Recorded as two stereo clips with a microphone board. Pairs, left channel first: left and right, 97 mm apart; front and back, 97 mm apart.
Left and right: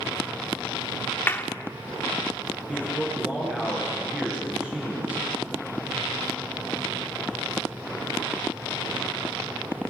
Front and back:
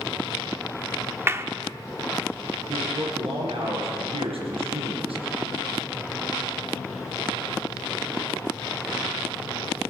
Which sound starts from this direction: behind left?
A clap, at 1.3 s.